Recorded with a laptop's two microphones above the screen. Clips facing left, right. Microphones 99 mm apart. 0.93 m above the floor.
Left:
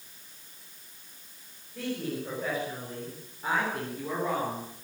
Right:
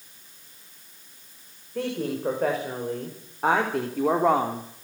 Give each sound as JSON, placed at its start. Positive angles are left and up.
{"t": 1.8, "sound": "a woman speaking", "side_deg": -60, "distance_m": 5.5}